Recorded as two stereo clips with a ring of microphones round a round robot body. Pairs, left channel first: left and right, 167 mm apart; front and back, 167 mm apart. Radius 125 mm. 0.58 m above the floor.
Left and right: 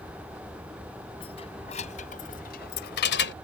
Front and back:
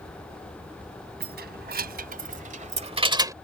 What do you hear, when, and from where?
1.2 s keys jangling: 160° left; by 3.3 s 110° left